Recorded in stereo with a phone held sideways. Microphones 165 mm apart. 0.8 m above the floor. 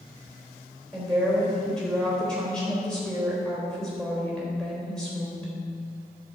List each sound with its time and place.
0.9 s a woman speaking: 5° left (ahead or behind), 3.5 m